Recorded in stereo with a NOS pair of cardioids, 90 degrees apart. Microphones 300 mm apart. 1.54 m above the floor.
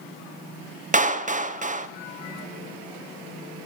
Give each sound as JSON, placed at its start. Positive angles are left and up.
{"t": 0.9, "sound": "a clap", "azimuth_deg": -25, "distance_m": 0.7}